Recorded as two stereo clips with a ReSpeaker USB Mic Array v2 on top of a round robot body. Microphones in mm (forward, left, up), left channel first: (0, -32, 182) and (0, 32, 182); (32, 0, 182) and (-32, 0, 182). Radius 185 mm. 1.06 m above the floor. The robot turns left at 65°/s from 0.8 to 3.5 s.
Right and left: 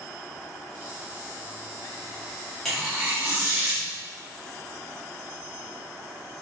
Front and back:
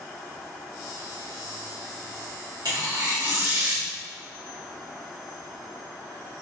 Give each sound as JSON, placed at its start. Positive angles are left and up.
{"t": 2.6, "sound": "tearing paper", "azimuth_deg": -175, "distance_m": 1.6}